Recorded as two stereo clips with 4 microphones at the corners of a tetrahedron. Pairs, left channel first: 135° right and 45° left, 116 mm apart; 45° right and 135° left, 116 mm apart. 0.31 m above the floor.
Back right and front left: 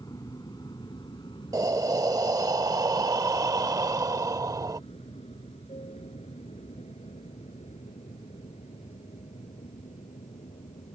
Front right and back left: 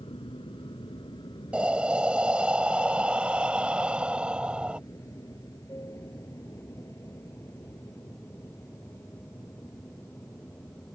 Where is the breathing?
65° left.